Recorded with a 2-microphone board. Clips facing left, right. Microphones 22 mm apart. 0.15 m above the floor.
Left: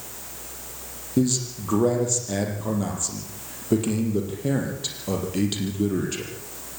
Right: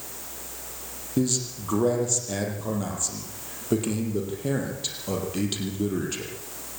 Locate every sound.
1.2 s a man speaking: centre (ahead or behind), 5 m